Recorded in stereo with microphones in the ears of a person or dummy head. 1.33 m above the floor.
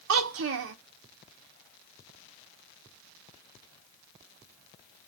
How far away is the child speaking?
About 0.8 m.